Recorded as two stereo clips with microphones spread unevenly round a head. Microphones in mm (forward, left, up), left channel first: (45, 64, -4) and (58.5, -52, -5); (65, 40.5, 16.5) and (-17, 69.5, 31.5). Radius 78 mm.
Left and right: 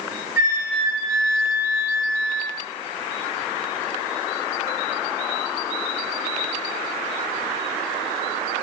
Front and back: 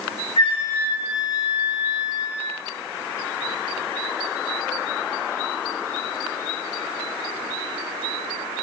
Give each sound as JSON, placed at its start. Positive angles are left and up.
{"t": 0.4, "sound": "a flute", "azimuth_deg": -20, "distance_m": 2.0}